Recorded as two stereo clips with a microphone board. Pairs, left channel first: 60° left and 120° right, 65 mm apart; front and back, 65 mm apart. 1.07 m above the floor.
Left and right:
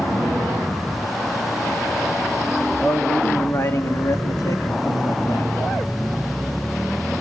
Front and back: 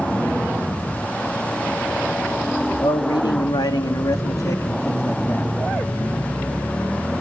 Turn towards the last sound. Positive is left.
turn(degrees=55)